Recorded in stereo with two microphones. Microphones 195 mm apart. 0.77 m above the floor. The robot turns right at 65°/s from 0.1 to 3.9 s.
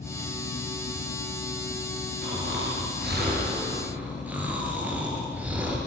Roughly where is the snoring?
Behind right.